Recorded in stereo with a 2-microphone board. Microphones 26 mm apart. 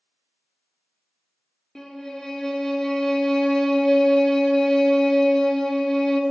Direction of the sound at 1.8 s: 20° left (ahead or behind).